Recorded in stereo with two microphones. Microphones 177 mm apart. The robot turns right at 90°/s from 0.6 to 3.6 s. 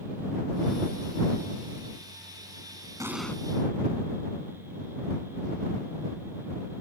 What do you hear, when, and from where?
3.0 s an explosion: 20° right; by 3.4 s 15° left